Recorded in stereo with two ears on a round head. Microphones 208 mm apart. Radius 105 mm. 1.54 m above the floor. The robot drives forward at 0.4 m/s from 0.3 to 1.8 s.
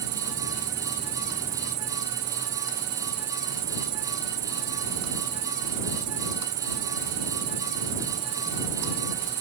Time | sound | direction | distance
0.0 | an insect | 85° right | ?